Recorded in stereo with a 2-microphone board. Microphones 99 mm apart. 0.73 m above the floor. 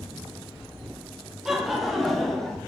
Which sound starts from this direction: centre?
Laughter, at 1.4 s.